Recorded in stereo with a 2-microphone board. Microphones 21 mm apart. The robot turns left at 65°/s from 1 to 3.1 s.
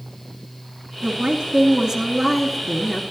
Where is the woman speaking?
80° right, 1.9 m; by 3.0 s 150° left, 1.9 m.